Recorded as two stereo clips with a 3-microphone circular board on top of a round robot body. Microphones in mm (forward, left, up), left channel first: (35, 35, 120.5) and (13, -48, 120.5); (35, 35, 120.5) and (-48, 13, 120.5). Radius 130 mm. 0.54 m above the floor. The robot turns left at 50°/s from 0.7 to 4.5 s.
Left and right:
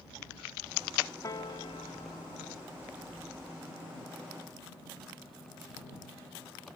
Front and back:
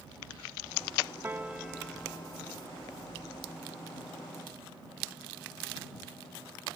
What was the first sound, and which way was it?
A piano, 130° left.